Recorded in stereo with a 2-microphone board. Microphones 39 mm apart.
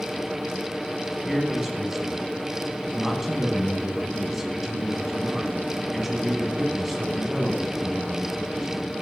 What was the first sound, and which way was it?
A man speaking, 10° right (ahead or behind).